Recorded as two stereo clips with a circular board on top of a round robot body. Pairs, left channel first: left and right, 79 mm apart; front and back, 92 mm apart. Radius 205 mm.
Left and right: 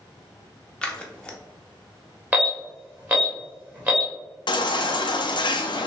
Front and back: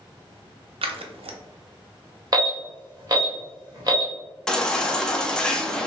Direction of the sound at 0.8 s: 170° left.